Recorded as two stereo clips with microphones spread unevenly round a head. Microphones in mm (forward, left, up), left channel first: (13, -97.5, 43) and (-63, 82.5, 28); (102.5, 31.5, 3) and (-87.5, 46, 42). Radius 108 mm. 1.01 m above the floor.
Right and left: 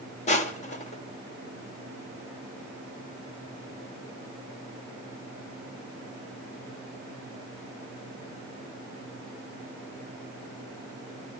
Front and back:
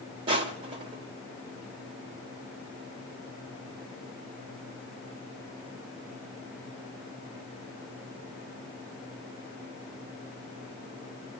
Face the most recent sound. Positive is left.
turn(degrees=-120)